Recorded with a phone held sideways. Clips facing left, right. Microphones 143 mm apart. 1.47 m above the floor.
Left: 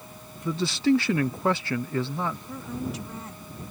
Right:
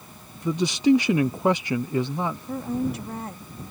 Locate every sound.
0.5 s a man speaking: 15° right (ahead or behind)
2.5 s a woman speaking: 55° right (ahead or behind)